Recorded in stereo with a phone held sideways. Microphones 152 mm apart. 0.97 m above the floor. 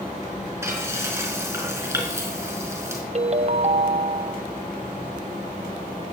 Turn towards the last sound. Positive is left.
turn(degrees=-50)  # may be behind; listen again after turning